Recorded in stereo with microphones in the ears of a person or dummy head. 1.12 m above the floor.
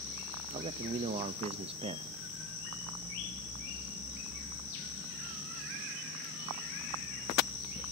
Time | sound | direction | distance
0.5 | a man speaking | 30° right (ahead or behind) | 0.7 m